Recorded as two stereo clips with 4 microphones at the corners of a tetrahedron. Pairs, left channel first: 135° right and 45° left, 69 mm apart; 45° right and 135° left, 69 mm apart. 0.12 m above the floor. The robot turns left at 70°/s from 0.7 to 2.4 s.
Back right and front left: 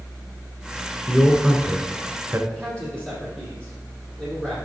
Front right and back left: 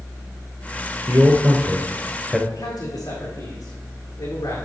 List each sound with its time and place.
1.1 s a man speaking: 130° left, 1.3 m; by 2.4 s 35° left, 1.3 m
2.5 s a man speaking: 55° right, 4 m